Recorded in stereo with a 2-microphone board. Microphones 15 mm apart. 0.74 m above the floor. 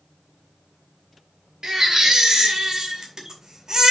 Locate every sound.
1.6 s a baby crying: 45° right (ahead or behind), 2 m